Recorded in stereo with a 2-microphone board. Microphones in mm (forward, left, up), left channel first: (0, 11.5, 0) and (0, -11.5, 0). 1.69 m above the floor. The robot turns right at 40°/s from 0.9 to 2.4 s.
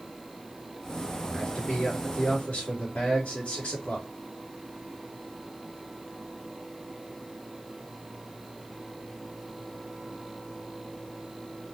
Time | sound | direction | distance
1.2 | a man speaking | 40° left | 3 m